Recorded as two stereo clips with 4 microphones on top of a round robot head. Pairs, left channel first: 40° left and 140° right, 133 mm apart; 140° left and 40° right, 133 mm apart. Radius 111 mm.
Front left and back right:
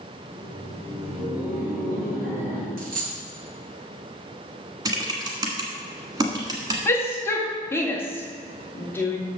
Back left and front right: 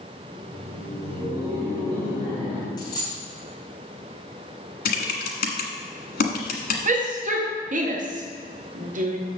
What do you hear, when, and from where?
0.2 s laughter: 120° right, 4 m; by 2.7 s 95° right, 4.5 m
2.8 s a dropped coin: 160° right, 2.5 m
4.8 s typing on a keyboard: 155° left, 1.4 m
6.8 s a shout: 30° right, 1.7 m